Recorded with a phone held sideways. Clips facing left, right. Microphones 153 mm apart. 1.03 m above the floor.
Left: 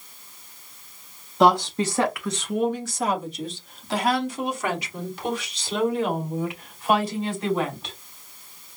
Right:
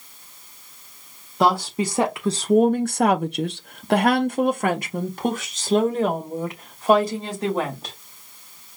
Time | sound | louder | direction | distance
1.4 | a woman speaking | left 2 dB | centre (ahead or behind) | 0.8 m